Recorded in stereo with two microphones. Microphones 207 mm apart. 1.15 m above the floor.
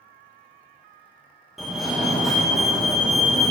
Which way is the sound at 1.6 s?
Centre (ahead or behind).